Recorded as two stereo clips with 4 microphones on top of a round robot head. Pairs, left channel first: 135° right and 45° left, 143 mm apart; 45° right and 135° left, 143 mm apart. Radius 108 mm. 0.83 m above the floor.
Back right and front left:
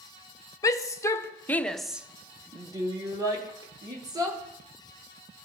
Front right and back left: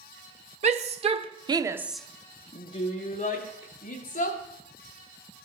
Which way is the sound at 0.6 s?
165° left.